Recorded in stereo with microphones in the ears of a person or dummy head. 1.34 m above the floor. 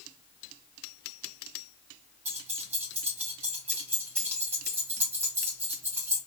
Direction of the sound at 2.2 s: 15° right (ahead or behind).